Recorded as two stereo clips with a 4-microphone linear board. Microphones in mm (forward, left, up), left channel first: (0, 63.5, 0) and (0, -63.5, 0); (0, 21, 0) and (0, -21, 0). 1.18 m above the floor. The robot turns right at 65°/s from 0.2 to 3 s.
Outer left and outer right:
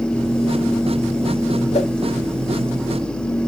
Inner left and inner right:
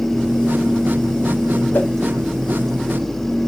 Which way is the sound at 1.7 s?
55° left (ahead or behind).